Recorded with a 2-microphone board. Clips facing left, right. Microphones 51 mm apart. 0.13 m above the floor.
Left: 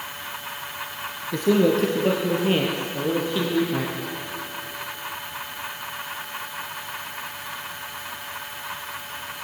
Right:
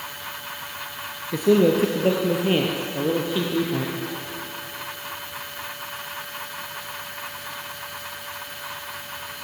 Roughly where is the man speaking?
Centre.